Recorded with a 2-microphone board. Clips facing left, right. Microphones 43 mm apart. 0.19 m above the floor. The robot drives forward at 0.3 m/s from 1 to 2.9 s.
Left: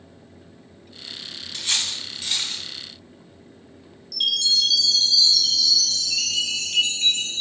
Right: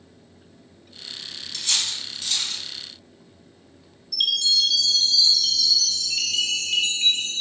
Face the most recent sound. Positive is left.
turn(degrees=-30)  # may be behind; listen again after turning